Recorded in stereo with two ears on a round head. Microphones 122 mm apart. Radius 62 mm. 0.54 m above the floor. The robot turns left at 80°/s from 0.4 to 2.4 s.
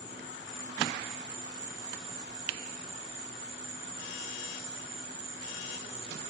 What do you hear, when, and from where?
0.0 s an insect: 35° left, 6.5 m; by 6.3 s 125° right, 6.5 m